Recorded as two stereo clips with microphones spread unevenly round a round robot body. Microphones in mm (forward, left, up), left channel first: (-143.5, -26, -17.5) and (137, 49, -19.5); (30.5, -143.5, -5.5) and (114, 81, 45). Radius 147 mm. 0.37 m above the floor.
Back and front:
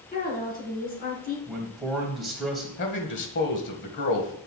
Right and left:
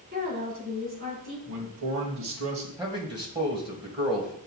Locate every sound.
0.1 s a woman speaking: 135° left, 4 m
1.5 s a man speaking: 105° left, 1.7 m
2.8 s a man speaking: 150° left, 1.6 m